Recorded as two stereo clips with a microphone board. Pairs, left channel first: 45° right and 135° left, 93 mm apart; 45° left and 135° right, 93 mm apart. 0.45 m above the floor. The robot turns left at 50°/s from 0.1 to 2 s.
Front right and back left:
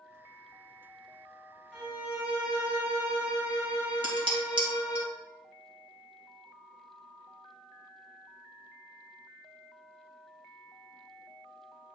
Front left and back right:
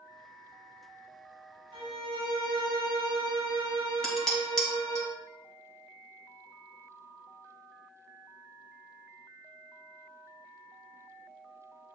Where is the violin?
140° right, 2.5 m; by 5.0 s 155° right, 2.5 m.